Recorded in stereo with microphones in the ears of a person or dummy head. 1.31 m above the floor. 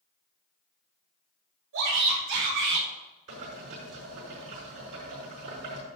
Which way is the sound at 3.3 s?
60° right (ahead or behind).